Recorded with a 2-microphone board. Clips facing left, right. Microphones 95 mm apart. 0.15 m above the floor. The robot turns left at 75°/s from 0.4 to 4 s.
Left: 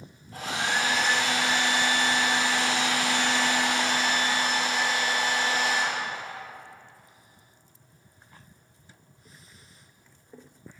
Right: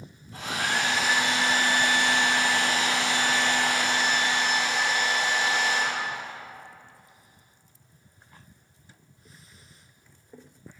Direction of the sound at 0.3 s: 45° left.